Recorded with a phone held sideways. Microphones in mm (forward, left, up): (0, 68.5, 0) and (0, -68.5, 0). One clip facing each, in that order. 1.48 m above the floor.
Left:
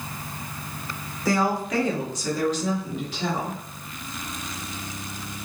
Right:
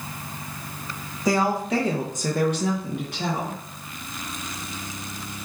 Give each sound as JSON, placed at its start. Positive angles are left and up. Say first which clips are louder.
{"t": 1.2, "sound": "a woman speaking", "louder": "right 1 dB", "side_deg": -15, "distance_m": 1.3}